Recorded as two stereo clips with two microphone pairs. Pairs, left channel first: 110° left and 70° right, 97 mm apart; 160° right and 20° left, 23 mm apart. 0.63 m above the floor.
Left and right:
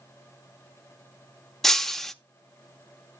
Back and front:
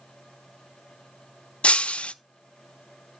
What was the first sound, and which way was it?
Breaking glass, 160° right.